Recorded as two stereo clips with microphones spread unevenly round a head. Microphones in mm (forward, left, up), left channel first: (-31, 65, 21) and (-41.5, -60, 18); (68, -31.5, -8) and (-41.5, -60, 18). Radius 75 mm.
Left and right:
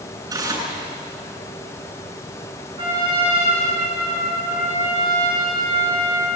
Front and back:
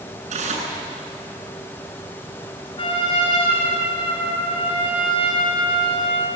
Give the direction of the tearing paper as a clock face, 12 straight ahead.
5 o'clock.